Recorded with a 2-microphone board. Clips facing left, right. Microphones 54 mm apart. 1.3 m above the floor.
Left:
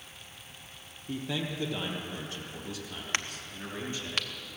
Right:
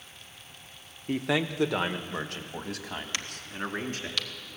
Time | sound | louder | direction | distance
1.1 | a man speaking | right 7 dB | 70° right (ahead or behind) | 0.8 m
3.1 | a crack | left 1 dB | 40° left (ahead or behind) | 1.0 m